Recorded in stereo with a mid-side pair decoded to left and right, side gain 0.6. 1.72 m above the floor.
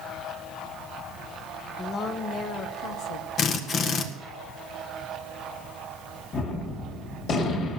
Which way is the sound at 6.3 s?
50° left.